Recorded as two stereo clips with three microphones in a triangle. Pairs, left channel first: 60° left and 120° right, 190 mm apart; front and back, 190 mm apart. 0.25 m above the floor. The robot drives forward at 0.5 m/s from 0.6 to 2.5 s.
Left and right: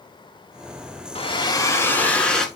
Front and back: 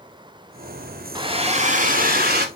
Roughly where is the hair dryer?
Behind left.